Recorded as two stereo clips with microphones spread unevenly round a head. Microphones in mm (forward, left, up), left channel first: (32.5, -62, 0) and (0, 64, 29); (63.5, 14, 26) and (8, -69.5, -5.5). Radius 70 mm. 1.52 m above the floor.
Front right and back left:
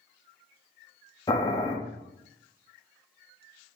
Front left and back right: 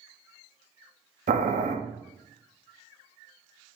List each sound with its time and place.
1.3 s boiling: 145° right, 0.5 m